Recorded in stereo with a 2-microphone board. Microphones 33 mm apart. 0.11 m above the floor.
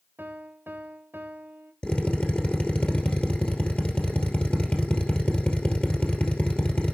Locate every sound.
0.2 s a piano: 75° right (ahead or behind), 1.0 m
1.8 s a drill: 40° left (ahead or behind), 2.5 m